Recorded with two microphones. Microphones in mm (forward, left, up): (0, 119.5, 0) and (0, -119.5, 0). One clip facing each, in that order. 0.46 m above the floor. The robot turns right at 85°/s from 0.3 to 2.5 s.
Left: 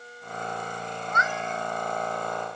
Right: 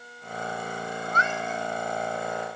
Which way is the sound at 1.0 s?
50° right.